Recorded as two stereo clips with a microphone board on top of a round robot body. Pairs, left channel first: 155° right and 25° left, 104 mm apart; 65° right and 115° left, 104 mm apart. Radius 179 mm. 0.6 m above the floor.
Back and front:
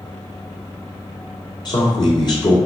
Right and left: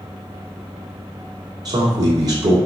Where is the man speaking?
160° left, 2 m.